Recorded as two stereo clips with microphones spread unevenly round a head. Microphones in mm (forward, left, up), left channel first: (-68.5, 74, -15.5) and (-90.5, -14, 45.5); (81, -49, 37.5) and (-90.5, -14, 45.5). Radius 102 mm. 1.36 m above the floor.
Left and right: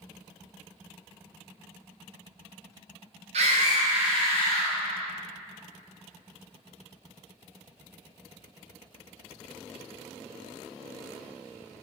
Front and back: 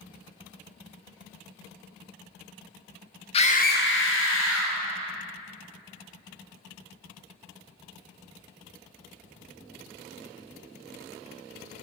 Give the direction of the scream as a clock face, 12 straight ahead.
2 o'clock.